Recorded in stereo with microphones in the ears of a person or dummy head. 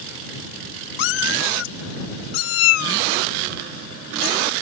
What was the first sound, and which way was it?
A cat meowing, 65° left (ahead or behind).